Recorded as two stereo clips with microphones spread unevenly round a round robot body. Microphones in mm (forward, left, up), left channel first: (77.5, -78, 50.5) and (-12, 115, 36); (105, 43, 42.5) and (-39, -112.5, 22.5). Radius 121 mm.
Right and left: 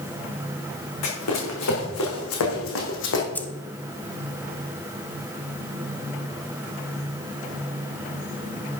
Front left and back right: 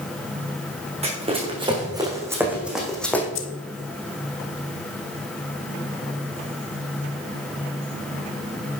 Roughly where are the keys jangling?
Ahead.